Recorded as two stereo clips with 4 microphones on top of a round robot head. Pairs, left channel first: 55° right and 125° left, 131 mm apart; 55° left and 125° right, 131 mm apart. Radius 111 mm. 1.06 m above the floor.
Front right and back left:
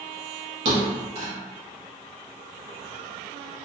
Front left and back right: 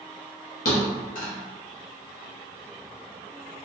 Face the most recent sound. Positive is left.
turn(degrees=80)